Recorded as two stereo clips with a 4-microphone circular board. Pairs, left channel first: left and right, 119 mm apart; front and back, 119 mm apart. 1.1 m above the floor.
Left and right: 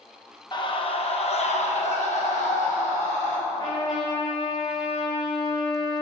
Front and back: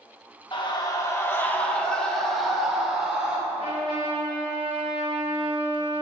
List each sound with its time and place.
0.5 s a scream: 45° left, 1.0 m; by 3.4 s 100° left, 2 m
3.5 s a trumpet: 140° left, 1.5 m